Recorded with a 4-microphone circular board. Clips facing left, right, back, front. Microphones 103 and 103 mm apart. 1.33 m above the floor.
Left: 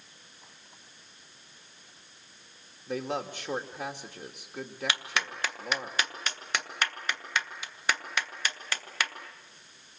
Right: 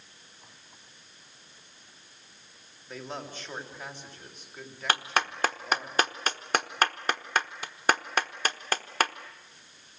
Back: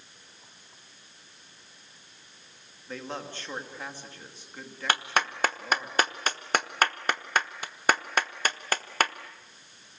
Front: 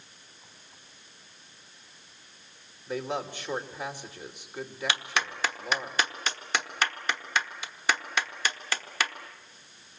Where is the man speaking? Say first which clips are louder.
Left 6 dB, front 5 dB; 75° left, 3 m.